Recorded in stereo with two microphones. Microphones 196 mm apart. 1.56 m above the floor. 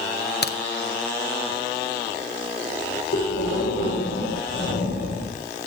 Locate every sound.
0.4 s a crack: 60° left (ahead or behind), 0.7 m
3.1 s breathing: 85° left, 5 m